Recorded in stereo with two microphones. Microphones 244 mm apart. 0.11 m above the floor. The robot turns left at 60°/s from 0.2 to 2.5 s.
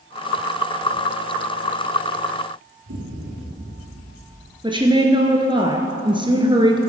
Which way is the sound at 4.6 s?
20° right (ahead or behind).